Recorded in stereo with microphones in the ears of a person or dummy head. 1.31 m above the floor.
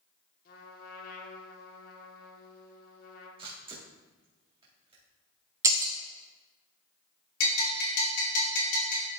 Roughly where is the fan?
I don't hear a fan.